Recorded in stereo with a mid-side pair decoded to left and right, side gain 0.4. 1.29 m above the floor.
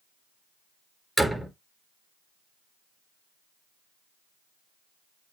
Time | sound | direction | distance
1.2 | a door slam | 5° right | 4 m